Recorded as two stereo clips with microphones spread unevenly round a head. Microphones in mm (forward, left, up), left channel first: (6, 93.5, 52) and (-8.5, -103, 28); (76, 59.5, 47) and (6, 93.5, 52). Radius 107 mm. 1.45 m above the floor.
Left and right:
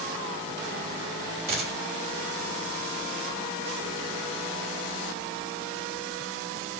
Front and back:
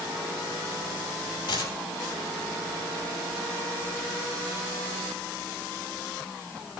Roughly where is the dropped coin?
Ahead right.